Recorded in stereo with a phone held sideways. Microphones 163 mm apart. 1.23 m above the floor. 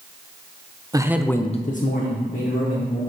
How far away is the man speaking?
About 0.7 m.